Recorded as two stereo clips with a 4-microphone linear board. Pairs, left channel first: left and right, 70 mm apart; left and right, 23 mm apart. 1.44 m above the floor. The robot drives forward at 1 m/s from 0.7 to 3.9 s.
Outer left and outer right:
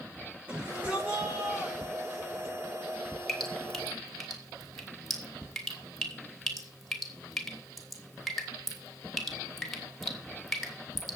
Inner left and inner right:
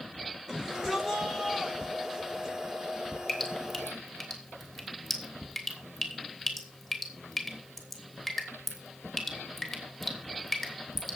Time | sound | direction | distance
0.5 | a shout | 25° right (ahead or behind) | 6.5 m
3.3 | dripping | 5° left (ahead or behind) | 2.5 m